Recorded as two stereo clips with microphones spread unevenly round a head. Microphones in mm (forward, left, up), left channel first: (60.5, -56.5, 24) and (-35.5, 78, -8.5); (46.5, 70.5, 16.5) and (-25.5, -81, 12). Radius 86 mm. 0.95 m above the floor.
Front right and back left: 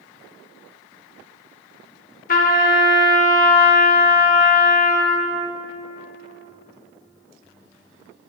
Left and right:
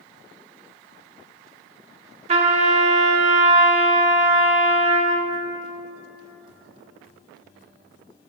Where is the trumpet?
65° right, 0.9 m.